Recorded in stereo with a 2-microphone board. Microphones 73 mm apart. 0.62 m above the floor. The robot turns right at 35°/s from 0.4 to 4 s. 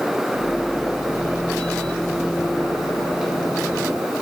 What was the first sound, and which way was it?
Only background noise.